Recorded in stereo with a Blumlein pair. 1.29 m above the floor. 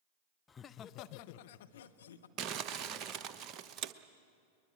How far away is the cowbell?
I don't hear a cowbell.